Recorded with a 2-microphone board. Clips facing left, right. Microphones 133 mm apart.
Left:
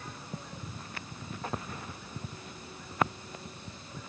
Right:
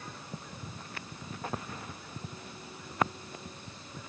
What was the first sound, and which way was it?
Only background noise.